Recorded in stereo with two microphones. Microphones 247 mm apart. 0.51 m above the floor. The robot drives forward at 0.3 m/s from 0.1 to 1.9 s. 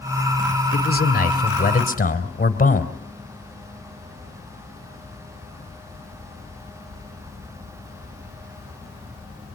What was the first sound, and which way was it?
A man speaking, 40° left (ahead or behind).